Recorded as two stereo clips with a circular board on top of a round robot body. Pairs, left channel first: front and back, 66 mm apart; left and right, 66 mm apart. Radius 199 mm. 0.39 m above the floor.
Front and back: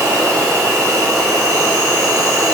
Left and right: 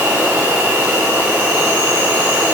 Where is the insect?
160° right, 3 m.